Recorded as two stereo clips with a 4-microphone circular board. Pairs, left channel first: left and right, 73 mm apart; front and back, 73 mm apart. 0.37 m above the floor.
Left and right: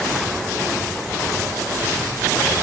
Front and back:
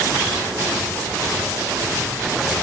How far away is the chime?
No chime in this recording.